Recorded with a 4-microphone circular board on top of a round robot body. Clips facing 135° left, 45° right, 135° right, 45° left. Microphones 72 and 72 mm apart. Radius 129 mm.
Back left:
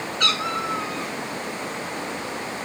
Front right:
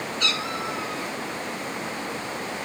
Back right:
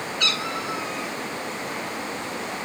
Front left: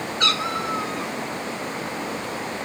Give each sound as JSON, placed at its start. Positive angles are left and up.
{"t": 0.2, "sound": "a cat meowing", "azimuth_deg": 95, "distance_m": 8.0}